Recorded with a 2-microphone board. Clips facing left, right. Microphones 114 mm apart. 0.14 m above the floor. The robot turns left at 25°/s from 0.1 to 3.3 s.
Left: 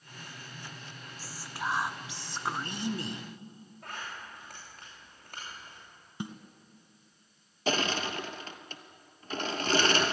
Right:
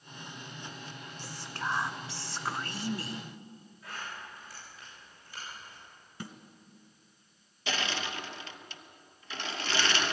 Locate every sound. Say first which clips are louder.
1.2 s whispering: left 1 dB; 5° left (ahead or behind), 1.1 m; by 3.2 s 25° left (ahead or behind), 1.1 m
3.8 s a zipper: even; 55° left (ahead or behind), 9 m
6.2 s a snare drum: left 5 dB; 20° left (ahead or behind), 1.4 m
7.7 s crushing: left 5 dB; 40° left (ahead or behind), 1.2 m